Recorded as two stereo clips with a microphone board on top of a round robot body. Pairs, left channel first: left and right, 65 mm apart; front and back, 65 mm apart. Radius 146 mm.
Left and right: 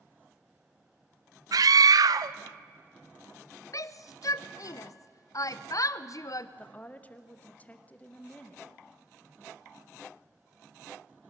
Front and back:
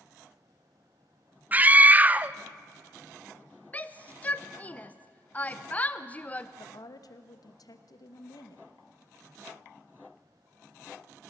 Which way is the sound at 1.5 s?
110° right.